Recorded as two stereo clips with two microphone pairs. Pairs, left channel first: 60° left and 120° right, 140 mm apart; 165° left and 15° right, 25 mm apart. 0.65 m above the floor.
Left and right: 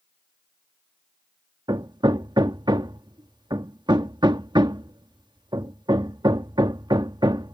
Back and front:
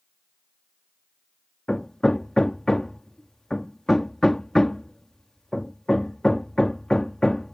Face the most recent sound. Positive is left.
turn(degrees=-145)